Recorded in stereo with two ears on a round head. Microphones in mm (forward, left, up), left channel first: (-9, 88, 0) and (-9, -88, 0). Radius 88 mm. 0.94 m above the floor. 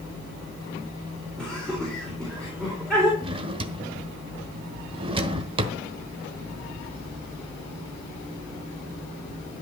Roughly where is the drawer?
Right.